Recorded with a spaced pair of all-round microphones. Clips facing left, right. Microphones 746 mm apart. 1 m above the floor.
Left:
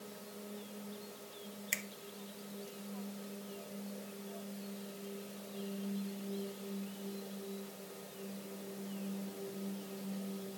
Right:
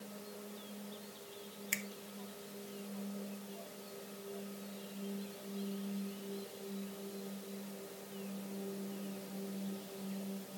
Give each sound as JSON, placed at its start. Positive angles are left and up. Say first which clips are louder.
{"t": 1.7, "sound": "a finger snap", "louder": "right 2 dB", "side_deg": 5, "distance_m": 0.5}